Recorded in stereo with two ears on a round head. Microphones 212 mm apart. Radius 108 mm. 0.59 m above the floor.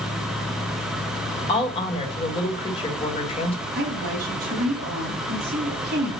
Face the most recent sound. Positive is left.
turn(degrees=-35)  # may be behind; listen again after turning